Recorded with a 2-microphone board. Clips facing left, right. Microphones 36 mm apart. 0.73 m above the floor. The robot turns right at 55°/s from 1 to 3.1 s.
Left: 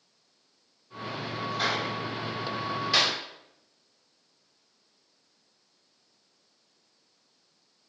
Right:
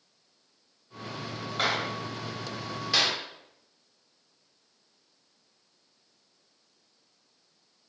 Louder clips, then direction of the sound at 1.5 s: Right 1 dB; 60° right (ahead or behind).